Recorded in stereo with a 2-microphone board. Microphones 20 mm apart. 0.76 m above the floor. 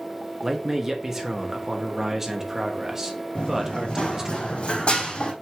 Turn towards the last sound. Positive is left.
turn(degrees=65)  # may be behind; listen again after turning